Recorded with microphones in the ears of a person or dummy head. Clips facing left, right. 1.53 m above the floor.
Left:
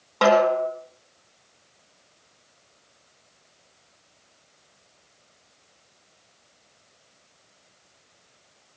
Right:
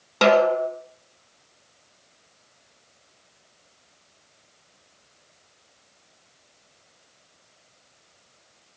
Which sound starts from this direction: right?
A snare drum, at 0.2 s.